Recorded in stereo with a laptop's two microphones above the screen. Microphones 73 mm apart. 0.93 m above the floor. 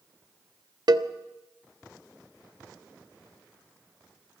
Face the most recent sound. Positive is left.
turn(degrees=-65)  # may be behind; listen again after turning